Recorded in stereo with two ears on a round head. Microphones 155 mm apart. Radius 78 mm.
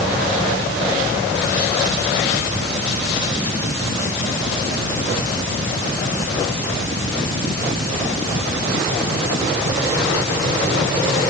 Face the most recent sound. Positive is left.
No sound to turn to.